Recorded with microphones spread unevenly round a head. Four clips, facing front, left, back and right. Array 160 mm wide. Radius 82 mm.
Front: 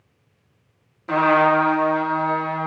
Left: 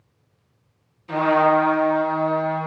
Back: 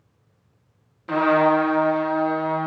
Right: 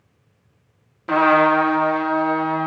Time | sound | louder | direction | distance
1.1 | a trumpet | right 2 dB, front 1 dB | 70° right | 1.7 m